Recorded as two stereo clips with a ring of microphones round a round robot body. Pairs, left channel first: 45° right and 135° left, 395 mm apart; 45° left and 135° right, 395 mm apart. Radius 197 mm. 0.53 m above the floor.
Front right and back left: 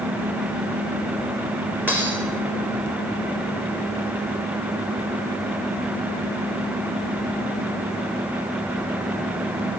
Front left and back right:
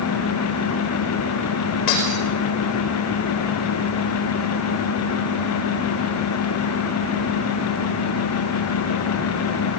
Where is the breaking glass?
50° left, 6 m.